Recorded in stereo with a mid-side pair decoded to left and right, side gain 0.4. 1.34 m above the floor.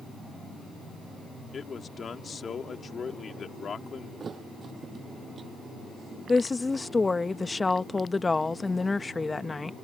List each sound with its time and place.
1.5 s a man speaking: 50° left
4.2 s a thud: 45° right
6.3 s a woman speaking: 25° left